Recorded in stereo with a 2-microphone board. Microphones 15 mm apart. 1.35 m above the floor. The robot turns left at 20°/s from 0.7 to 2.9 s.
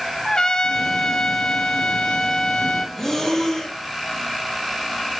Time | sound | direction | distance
0.2 | a trumpet | 125° left | 0.9 m
3.0 | breathing | 20° left (ahead or behind) | 2.5 m